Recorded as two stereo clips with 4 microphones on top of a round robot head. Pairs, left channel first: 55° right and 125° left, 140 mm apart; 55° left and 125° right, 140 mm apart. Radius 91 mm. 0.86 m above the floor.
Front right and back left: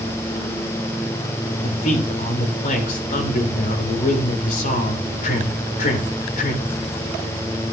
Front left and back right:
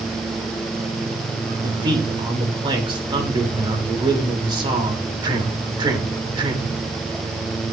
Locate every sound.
1.6 s a man speaking: 70° right, 3 m